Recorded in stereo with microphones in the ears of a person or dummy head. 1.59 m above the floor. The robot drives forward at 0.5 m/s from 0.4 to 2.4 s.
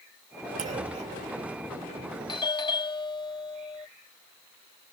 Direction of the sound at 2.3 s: 20° left (ahead or behind).